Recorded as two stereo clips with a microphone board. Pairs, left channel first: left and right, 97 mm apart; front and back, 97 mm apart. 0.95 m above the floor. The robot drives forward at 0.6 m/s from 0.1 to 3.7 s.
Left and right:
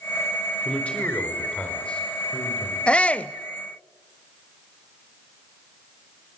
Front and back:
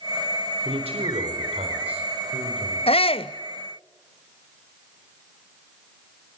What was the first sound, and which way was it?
A man speaking, 170° left.